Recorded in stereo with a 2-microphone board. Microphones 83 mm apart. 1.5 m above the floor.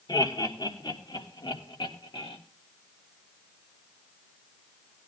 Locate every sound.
0.1 s laughter: 60° left (ahead or behind), 3.5 m; by 2.4 s 80° left, 3 m